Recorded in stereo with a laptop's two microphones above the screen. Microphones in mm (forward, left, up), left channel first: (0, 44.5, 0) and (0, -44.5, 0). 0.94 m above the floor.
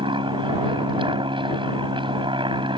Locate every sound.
0.0 s an aircraft: 65° right (ahead or behind)